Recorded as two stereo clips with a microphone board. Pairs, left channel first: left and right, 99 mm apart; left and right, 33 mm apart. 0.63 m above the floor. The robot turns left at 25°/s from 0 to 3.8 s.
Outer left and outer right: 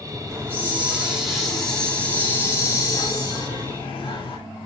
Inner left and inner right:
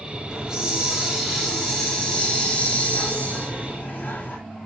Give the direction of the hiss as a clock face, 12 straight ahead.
5 o'clock.